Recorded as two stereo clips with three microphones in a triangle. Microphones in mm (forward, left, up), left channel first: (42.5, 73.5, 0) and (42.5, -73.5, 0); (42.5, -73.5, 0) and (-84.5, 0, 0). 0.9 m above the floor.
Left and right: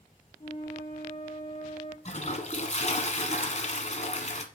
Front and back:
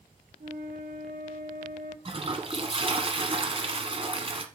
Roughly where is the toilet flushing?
Left.